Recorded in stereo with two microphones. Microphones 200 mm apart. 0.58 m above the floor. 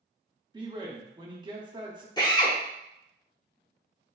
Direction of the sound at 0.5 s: 20° right (ahead or behind).